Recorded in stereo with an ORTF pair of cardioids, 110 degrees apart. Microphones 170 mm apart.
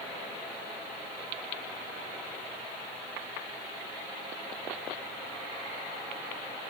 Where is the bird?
I don't hear a bird.